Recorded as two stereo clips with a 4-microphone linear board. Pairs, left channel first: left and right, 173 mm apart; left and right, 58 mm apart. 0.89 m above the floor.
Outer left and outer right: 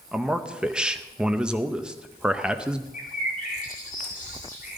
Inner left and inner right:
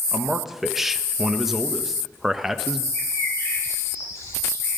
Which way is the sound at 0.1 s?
5° right (ahead or behind).